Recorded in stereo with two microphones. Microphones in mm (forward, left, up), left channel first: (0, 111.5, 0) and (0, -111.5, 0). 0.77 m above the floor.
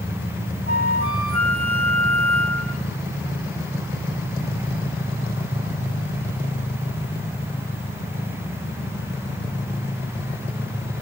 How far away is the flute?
About 0.8 m.